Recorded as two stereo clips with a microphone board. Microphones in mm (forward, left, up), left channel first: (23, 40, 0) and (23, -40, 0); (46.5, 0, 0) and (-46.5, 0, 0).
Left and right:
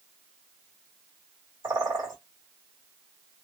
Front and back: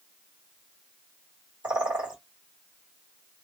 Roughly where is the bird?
Right.